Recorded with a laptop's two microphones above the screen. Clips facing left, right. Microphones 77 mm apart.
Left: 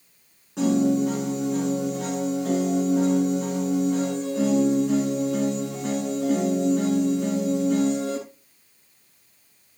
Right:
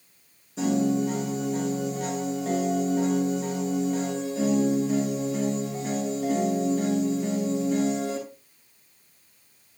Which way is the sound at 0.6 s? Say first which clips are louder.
Left 3 dB; 70° left (ahead or behind).